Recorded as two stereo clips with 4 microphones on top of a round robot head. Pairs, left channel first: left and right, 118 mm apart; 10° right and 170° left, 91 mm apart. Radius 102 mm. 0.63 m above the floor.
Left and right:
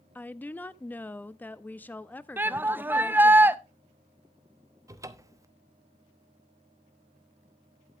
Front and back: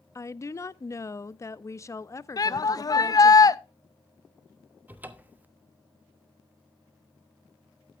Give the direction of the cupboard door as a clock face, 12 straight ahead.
4 o'clock.